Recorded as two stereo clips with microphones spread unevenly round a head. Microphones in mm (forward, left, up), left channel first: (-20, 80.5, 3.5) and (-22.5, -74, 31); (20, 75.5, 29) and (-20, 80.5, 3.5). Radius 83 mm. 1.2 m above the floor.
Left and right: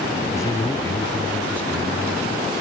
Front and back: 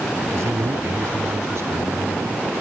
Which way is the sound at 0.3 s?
160° left.